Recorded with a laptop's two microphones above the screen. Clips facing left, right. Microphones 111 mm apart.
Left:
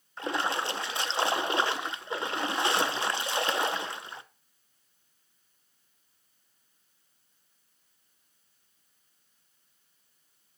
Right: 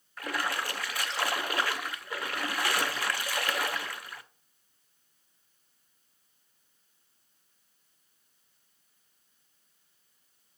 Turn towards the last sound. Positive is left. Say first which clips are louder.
# left 3 dB
turn(degrees=25)  # may be behind; listen again after turning